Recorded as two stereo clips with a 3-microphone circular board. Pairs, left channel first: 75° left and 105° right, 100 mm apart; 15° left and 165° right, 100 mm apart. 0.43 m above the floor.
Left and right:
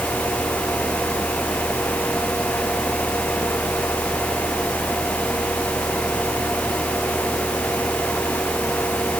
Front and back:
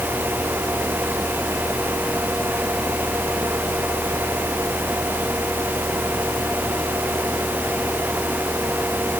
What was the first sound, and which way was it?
Only background noise.